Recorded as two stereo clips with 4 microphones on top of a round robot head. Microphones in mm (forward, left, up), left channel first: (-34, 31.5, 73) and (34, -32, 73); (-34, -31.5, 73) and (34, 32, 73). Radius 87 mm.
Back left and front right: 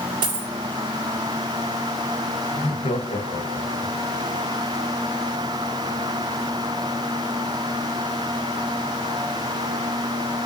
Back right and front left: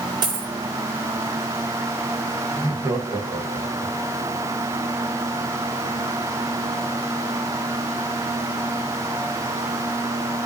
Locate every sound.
0.2 s a dropped coin: 5° right, 2.5 m
2.5 s laughter: 105° left, 2.0 m